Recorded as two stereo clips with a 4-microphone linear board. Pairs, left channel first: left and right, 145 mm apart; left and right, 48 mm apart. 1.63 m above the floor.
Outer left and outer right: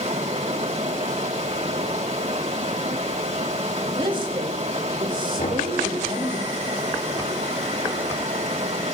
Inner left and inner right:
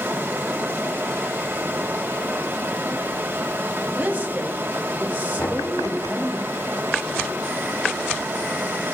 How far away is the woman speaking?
About 4 m.